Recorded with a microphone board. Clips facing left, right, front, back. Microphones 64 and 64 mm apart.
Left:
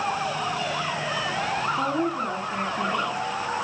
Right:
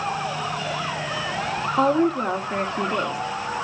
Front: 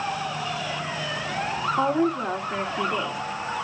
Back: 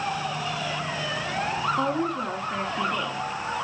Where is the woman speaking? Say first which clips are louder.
Right 6 dB, front 3 dB; 75° right, 1.5 m.